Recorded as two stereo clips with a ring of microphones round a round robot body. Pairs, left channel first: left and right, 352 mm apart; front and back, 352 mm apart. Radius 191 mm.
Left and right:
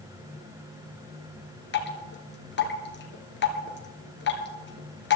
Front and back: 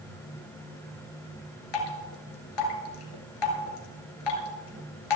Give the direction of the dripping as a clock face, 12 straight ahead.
11 o'clock.